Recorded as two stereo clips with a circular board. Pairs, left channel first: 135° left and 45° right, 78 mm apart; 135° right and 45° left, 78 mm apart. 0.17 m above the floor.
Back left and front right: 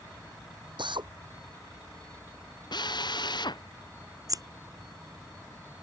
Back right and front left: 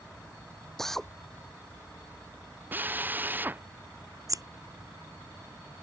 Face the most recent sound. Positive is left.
turn(degrees=0)